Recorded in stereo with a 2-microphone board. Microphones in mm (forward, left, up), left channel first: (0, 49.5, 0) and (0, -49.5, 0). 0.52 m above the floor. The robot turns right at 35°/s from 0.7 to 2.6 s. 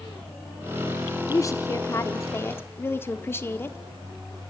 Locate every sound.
1.3 s a woman speaking: 85° left, 0.9 m; by 3.8 s 135° left, 0.9 m